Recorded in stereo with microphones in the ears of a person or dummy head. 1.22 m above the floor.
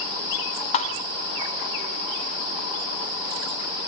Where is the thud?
35° left (ahead or behind), 0.6 m.